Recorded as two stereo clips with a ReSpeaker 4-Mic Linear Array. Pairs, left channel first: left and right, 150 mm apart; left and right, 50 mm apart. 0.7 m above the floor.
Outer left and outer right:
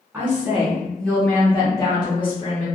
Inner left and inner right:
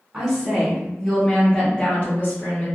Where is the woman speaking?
15° right (ahead or behind), 1.3 m; by 2.7 s 40° left (ahead or behind), 1.2 m.